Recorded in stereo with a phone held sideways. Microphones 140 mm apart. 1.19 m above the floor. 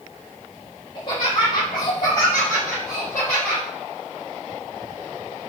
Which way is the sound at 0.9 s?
35° left (ahead or behind).